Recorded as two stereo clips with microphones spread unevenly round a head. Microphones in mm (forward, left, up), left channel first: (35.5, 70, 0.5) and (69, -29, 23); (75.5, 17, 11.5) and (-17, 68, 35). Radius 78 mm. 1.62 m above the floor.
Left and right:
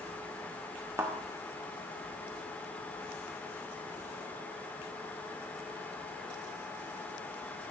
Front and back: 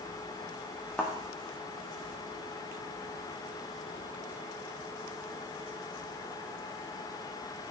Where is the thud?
125° right, 1.3 m.